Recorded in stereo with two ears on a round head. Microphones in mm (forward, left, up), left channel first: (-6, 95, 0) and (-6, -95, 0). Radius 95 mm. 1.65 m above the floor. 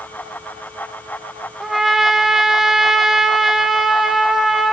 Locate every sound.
1.6 s a trumpet: centre (ahead or behind), 0.7 m